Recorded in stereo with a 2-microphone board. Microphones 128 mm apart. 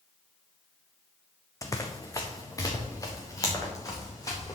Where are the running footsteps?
25° left (ahead or behind), 1.1 m.